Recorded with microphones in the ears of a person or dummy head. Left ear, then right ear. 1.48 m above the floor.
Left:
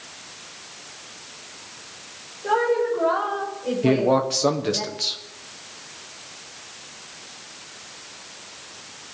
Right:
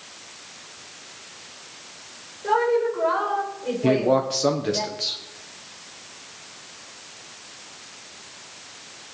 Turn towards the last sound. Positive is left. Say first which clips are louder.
# even
turn(degrees=10)  # may be behind; listen again after turning